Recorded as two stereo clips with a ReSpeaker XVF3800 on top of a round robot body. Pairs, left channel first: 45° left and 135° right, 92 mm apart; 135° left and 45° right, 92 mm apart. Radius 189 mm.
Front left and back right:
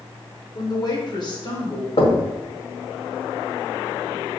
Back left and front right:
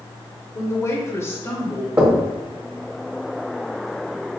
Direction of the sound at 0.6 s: 85° left.